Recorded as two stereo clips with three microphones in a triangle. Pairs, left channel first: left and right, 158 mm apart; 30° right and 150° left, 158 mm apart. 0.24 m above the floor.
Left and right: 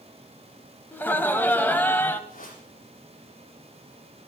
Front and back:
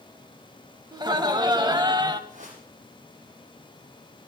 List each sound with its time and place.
0.9 s laughter: 150° left, 1.3 m
2.3 s a whoosh: 115° left, 7.5 m